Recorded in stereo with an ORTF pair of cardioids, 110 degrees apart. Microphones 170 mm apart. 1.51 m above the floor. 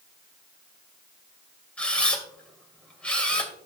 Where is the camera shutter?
5° left, 2 m.